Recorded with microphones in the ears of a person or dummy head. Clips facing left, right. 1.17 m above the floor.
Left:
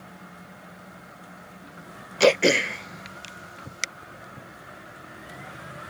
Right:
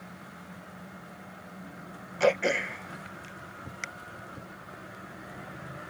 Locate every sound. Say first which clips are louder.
2.2 s throat clearing: left 6 dB; 50° left (ahead or behind)